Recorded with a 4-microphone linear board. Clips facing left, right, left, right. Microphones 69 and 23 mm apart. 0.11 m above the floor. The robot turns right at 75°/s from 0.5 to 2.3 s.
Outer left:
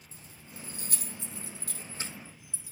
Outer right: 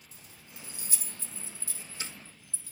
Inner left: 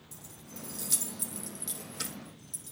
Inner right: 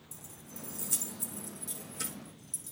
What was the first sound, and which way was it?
Keys jangling, 30° left (ahead or behind).